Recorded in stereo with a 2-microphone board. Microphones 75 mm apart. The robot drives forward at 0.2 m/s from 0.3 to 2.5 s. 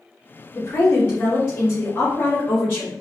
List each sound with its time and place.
0.6 s a woman speaking: 30° left (ahead or behind), 1.3 m; by 2.9 s 25° left (ahead or behind), 1.5 m